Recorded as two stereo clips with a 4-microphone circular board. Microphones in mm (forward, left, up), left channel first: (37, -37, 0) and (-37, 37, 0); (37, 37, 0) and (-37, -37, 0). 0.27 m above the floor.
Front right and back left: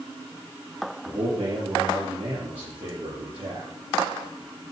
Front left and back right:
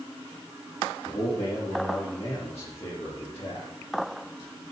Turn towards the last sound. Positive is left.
turn(degrees=110)